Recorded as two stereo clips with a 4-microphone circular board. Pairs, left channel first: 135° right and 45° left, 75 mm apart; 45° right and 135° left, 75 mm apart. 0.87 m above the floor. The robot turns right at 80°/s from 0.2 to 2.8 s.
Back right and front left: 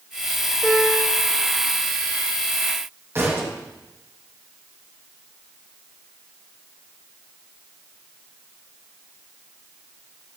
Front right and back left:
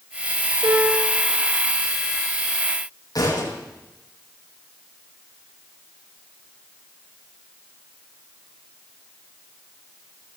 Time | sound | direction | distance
0.6 | a piano | 140° left | 4 m
3.1 | a thud | 10° right | 9 m